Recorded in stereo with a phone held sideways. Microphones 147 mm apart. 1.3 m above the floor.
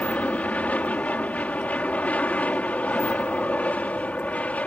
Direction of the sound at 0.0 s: 10° left (ahead or behind).